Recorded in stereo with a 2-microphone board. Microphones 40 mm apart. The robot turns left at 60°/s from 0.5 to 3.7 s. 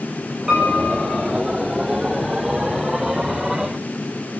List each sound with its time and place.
0.5 s a piano: 15° right, 7.5 m; by 1.2 s 55° right, 7.5 m